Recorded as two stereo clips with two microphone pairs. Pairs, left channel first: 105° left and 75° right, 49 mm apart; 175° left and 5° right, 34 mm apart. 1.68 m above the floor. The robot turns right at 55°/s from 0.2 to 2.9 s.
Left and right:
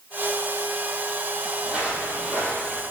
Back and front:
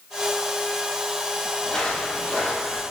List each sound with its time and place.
1.6 s footsteps: 140° right, 2.5 m; by 2.8 s 100° right, 3 m